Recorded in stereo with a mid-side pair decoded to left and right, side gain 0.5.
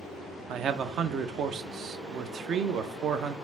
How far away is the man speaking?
About 0.5 m.